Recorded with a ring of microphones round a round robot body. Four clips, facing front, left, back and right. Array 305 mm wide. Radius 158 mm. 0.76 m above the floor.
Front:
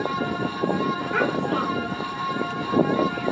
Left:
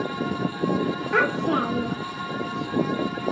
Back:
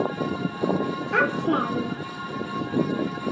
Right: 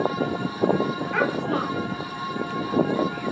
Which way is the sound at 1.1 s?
130° left.